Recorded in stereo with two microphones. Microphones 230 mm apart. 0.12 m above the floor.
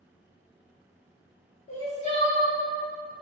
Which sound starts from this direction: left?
Crying, at 1.7 s.